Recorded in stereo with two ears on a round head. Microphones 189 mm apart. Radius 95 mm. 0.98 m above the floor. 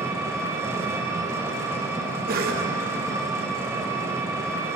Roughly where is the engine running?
Centre.